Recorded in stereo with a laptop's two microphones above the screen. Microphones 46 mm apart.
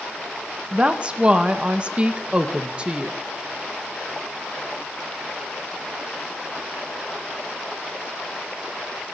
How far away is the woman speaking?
About 0.8 m.